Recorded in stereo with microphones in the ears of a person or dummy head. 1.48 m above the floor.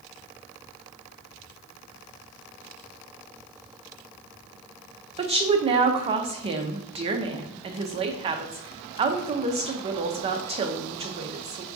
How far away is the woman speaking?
About 0.5 m.